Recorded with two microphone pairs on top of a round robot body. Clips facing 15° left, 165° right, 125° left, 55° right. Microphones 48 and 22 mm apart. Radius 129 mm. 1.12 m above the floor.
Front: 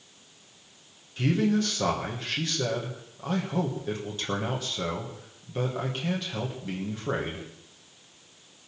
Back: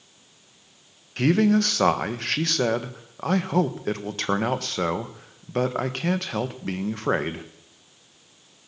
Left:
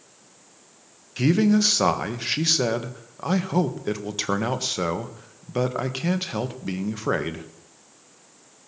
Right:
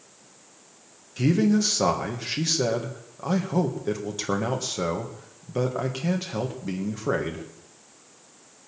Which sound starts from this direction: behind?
A man speaking, at 1.2 s.